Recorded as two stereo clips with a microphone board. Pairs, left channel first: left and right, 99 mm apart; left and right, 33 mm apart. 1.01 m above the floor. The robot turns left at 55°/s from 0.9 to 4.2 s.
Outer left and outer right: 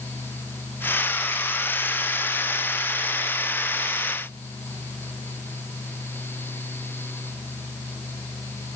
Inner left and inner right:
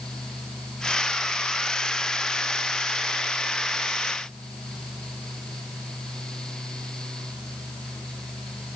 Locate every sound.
Only background noise.